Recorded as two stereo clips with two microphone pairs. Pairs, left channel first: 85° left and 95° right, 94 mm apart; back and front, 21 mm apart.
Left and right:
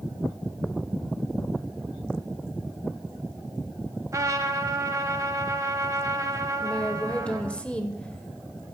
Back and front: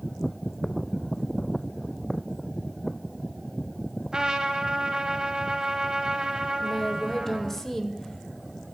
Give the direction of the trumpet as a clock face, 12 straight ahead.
1 o'clock.